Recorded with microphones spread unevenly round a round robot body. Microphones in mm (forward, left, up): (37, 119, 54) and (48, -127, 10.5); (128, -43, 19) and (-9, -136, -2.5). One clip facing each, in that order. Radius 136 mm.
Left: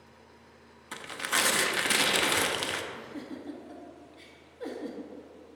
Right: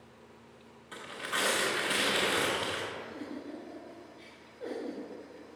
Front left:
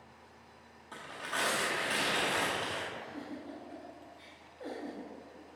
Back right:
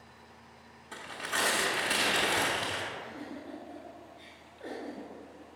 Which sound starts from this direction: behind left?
Tearing paper, at 0.9 s.